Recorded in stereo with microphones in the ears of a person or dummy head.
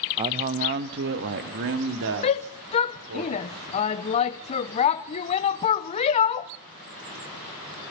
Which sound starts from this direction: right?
A man speaking, at 0.2 s.